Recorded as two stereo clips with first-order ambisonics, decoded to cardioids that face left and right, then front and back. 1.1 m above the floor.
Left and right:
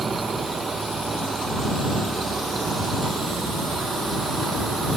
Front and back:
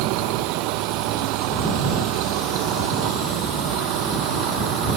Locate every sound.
0.0 s a vehicle: 165° right